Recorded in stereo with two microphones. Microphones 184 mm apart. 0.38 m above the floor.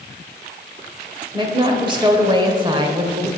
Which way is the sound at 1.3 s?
25° right (ahead or behind).